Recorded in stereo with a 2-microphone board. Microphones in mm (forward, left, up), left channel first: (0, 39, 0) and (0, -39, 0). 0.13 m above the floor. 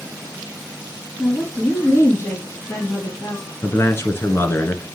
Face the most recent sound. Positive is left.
turn(degrees=35)  # may be behind; listen again after turning